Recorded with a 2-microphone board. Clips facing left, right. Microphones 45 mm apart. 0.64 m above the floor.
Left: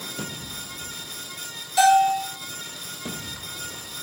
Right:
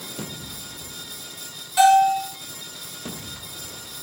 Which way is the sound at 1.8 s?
20° right (ahead or behind).